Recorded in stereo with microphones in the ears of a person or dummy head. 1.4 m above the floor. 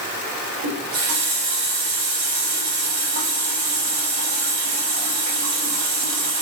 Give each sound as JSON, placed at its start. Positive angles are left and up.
{"t": 0.6, "sound": "a running tap", "side_deg": -55, "distance_m": 2.5}